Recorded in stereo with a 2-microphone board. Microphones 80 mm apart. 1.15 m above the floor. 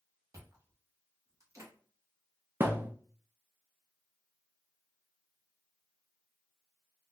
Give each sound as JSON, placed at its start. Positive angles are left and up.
{"t": 0.3, "sound": "chewing", "side_deg": -40, "distance_m": 1.0}
{"t": 2.6, "sound": "a thud", "side_deg": -30, "distance_m": 0.6}